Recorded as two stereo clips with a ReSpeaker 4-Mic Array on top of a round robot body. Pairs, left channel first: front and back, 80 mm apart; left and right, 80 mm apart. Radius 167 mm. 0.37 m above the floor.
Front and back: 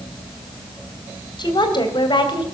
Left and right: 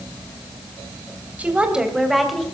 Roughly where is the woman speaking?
Ahead.